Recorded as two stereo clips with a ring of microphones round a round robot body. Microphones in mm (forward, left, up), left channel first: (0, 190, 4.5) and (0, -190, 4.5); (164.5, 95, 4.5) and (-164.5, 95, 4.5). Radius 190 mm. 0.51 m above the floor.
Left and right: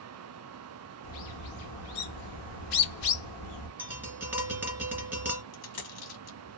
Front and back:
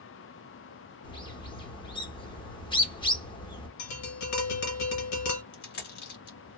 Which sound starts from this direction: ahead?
Tapping, at 3.8 s.